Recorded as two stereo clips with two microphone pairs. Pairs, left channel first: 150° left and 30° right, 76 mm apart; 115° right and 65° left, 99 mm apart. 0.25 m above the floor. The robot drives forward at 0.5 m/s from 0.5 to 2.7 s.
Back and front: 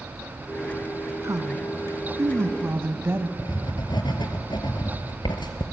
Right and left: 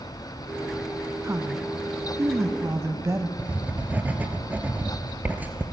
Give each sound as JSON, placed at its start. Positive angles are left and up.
{"t": 1.2, "sound": "a woman speaking", "azimuth_deg": 10, "distance_m": 1.9}
{"t": 3.4, "sound": "writing", "azimuth_deg": 135, "distance_m": 1.8}